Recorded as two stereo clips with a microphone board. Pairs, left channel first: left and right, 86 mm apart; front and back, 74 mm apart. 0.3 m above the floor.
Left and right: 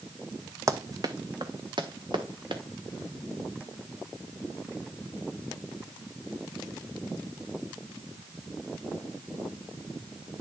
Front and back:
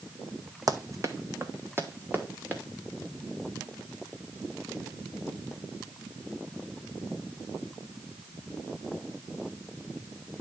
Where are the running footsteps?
140° right, 0.8 m; by 2.6 s 115° right, 1.9 m.